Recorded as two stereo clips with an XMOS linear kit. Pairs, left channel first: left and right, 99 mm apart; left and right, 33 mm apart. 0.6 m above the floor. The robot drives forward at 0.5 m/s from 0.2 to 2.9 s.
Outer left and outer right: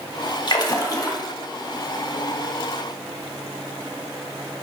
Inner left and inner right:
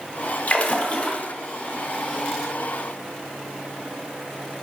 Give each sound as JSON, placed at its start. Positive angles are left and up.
{"t": 0.5, "sound": "a splash", "side_deg": 45, "distance_m": 0.8}